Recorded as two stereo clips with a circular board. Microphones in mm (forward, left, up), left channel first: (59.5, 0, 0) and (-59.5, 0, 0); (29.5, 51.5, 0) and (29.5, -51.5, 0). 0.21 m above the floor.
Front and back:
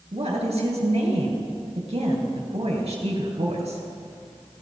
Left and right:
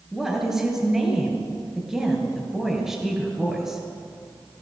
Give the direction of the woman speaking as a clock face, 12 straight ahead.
6 o'clock.